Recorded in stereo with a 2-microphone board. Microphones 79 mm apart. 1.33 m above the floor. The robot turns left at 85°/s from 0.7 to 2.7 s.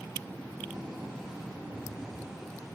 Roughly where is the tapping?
Ahead left.